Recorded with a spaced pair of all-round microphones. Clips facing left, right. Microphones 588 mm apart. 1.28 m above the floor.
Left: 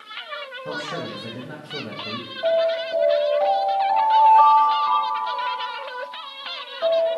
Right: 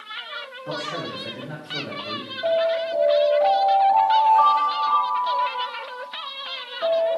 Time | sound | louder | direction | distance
0.7 | a man speaking | even | 55° left (ahead or behind) | 1.3 m
2.4 | an alarm | left 1 dB | 25° left (ahead or behind) | 4 m